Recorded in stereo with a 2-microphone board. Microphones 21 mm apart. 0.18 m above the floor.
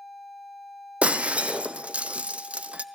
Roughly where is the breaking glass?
Right.